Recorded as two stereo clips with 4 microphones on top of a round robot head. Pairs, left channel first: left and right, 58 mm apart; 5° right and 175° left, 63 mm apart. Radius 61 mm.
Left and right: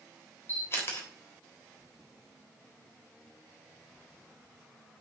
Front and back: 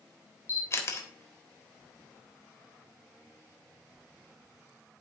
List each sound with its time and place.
0.5 s a camera shutter: 35° left, 3 m